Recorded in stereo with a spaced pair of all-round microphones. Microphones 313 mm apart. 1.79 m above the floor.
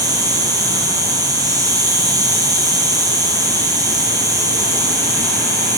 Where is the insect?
10° right (ahead or behind), 4 m.